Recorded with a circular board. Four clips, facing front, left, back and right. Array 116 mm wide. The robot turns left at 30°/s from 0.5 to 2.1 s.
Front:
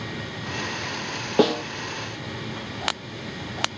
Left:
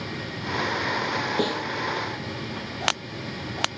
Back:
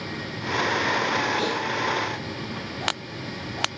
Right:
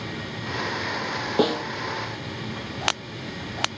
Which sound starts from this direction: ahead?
A snare drum, at 1.4 s.